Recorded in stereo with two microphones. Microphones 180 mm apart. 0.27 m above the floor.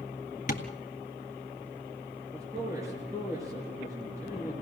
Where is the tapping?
45° left (ahead or behind), 1.8 m.